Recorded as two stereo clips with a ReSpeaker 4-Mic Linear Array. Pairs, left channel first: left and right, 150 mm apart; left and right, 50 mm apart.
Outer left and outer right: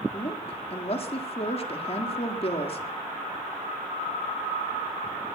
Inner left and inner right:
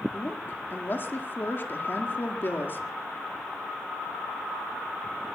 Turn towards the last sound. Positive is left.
turn(degrees=40)  # may be behind; listen again after turning